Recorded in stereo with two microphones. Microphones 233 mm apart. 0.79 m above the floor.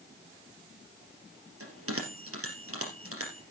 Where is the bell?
75° right (ahead or behind), 3 m.